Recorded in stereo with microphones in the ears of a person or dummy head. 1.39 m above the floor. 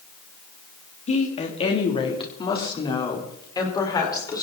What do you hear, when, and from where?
1.1 s a woman speaking: 35° left (ahead or behind), 3 m; by 4.4 s 20° left (ahead or behind), 5.5 m